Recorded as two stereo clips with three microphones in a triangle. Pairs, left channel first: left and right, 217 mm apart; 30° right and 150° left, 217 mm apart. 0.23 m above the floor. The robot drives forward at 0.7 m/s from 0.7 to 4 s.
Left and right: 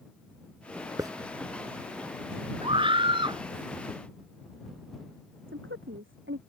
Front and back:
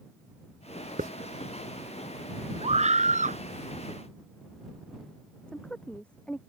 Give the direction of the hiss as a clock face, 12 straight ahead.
5 o'clock.